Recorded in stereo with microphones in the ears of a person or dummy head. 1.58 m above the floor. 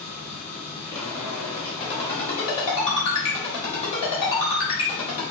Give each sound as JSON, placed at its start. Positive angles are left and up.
{"t": 0.0, "sound": "a machine running", "side_deg": 10, "distance_m": 1.4}
{"t": 1.8, "sound": "a ringtone", "side_deg": 20, "distance_m": 1.5}